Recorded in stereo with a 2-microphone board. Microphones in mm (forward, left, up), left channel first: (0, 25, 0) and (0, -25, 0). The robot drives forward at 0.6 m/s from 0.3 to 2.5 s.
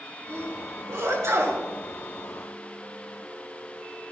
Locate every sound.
0.3 s a sneeze: 60° right (ahead or behind), 4 m; by 1.6 s 70° right (ahead or behind), 4 m